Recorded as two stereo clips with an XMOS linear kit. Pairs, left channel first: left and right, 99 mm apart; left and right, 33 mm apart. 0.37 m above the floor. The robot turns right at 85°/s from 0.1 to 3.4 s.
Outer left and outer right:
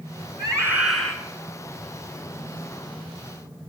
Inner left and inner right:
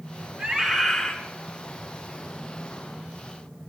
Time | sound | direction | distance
0.4 | a scream | 45° right | 4.5 m